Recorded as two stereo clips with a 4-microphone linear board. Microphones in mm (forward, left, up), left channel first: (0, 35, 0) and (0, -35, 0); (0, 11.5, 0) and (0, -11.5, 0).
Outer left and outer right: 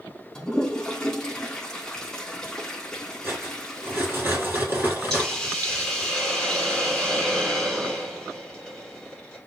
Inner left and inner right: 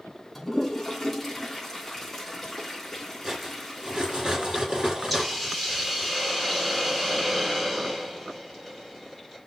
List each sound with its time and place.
0.3 s a toilet flushing: 10° left (ahead or behind), 2.5 m
3.2 s cutlery clinking: 35° right (ahead or behind), 5 m
5.1 s a hiss: 5° left (ahead or behind), 5 m